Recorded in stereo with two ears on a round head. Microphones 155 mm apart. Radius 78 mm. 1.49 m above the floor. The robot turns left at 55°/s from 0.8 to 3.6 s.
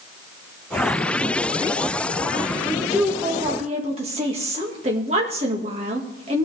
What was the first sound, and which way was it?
A woman speaking, 20° left.